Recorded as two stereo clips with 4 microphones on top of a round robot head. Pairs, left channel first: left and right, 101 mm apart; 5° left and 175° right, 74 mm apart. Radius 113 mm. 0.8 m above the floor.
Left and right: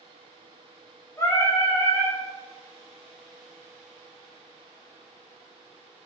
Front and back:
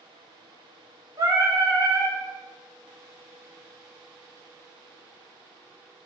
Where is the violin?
I don't hear a violin.